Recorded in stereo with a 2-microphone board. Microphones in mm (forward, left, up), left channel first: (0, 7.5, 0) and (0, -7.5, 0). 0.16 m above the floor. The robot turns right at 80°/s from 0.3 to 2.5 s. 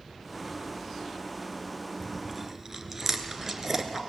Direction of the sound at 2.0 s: 10° left (ahead or behind).